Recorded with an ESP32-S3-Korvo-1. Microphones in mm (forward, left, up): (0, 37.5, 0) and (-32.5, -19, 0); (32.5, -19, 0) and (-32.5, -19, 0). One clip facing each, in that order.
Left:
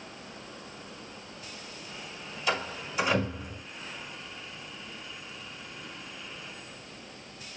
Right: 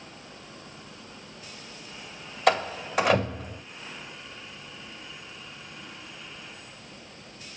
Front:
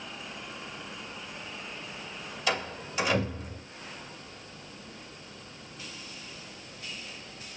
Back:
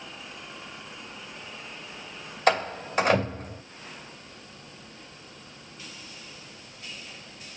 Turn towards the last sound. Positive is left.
turn(degrees=-140)